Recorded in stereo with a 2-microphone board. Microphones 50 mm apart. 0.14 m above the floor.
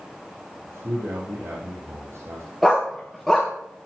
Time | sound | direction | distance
0.7 | a man speaking | 55° right (ahead or behind) | 5 m
2.6 | a dog barking | centre (ahead or behind) | 4 m